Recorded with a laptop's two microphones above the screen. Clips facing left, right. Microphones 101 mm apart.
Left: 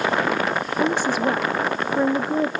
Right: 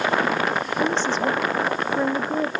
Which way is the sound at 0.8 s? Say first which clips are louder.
Left 2 dB; 10° left (ahead or behind).